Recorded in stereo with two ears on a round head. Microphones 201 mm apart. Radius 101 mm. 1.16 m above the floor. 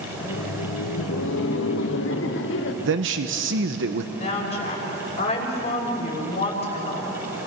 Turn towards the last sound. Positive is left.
turn(degrees=30)  # may be behind; listen again after turning